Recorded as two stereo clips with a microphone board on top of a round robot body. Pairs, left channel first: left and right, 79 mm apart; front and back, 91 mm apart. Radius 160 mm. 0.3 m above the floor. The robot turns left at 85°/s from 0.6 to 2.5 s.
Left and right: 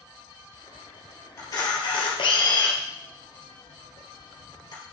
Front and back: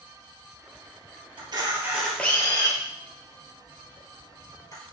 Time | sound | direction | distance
1.4 | a camera shutter | 150° left | 1.9 m